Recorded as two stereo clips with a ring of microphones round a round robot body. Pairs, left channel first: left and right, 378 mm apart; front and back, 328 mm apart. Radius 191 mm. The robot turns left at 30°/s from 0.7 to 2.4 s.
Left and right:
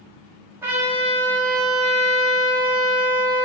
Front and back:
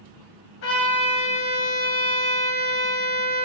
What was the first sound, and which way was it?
A trumpet, 10° right.